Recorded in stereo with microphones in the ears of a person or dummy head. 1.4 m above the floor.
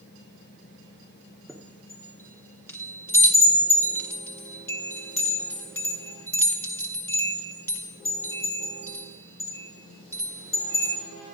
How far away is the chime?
About 0.9 m.